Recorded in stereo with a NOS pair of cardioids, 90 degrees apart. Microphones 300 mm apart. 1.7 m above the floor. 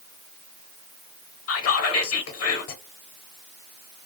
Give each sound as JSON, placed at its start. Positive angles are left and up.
{"t": 1.5, "sound": "whispering", "azimuth_deg": 55, "distance_m": 0.8}